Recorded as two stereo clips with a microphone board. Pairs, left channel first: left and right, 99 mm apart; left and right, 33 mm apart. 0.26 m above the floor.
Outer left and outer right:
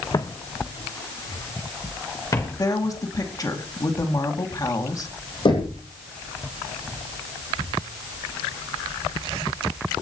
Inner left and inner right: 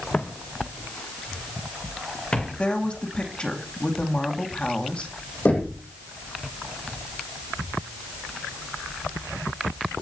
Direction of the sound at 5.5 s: 60° left (ahead or behind).